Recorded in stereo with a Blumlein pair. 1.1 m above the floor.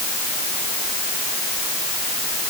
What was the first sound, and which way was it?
Only background noise.